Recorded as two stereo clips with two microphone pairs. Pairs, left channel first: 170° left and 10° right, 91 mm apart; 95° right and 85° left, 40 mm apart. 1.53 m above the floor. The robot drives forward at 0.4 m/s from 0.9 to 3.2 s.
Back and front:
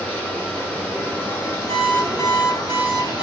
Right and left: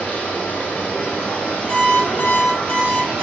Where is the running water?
125° right, 1.1 m; by 3.2 s 160° right, 1.6 m.